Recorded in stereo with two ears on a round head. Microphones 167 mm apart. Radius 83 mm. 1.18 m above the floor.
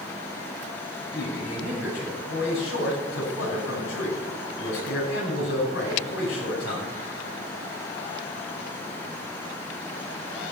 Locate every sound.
1.1 s a man speaking: 60° left (ahead or behind), 8.5 m